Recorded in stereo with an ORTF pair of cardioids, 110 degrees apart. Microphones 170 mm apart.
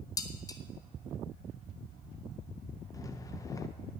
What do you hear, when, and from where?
0.2 s dishes clattering: 20° left, 1.3 m
2.9 s a rattle: 20° left, 1.1 m